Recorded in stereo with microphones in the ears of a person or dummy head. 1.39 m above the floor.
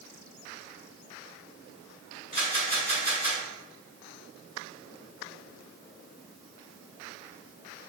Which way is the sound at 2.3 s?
35° left (ahead or behind).